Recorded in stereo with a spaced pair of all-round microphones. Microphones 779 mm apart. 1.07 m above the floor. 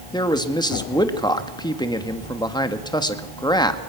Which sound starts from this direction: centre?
A man speaking, at 0.1 s.